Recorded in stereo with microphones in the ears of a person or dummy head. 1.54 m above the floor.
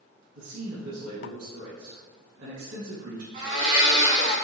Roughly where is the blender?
Right.